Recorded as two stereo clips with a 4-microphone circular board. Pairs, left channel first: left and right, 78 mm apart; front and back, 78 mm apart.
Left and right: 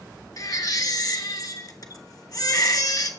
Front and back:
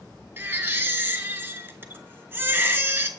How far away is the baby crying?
About 0.9 m.